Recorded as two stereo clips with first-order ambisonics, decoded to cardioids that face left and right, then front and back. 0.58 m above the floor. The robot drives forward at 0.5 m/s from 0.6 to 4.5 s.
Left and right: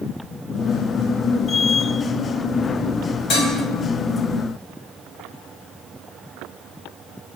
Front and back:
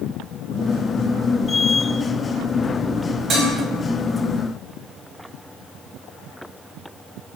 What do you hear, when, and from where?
3.3 s dishes clattering: 130° left, 1.2 m